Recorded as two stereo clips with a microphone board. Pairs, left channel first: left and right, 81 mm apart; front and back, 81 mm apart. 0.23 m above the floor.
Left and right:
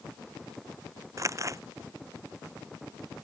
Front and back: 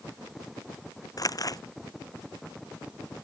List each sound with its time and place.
1.2 s crumpling: 40° right